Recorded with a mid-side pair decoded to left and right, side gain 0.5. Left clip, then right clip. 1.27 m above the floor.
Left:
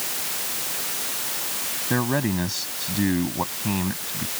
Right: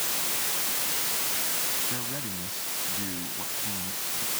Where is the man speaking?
70° left.